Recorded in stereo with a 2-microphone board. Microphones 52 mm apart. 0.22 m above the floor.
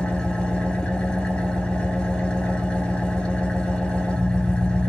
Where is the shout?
No shout in this recording.